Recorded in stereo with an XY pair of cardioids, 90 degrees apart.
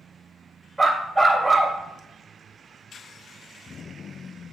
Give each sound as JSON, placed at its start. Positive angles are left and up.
{"t": 0.8, "sound": "a dog barking", "azimuth_deg": -15, "distance_m": 2.0}